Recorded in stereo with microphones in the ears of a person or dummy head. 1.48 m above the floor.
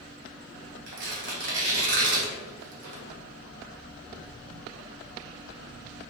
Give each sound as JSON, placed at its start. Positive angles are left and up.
{"t": 0.9, "sound": "tearing paper", "side_deg": -65, "distance_m": 1.8}